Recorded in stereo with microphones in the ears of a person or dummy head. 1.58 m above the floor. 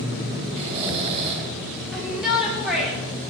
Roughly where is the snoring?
Right.